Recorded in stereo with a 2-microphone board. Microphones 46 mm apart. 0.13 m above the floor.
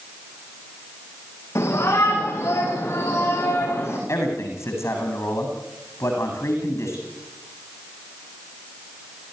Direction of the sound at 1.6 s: 70° left (ahead or behind).